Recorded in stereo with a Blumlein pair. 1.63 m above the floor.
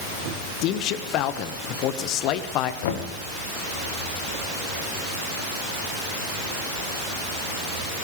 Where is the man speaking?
40° left, 1.1 m.